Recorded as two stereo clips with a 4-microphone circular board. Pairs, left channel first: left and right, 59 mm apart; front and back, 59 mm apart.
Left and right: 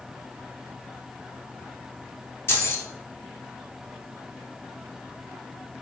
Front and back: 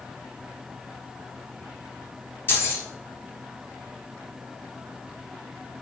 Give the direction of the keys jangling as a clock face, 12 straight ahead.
10 o'clock.